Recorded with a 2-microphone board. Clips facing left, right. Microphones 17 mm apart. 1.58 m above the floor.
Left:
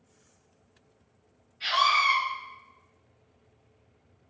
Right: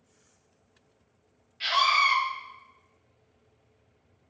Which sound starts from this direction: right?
A scream, at 1.6 s.